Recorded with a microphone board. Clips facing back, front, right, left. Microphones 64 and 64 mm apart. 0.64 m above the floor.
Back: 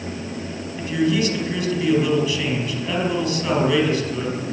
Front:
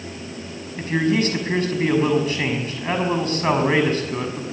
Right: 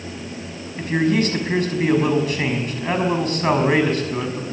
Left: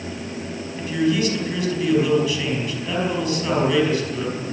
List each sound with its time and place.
0.8 s a man speaking: 45° right, 5 m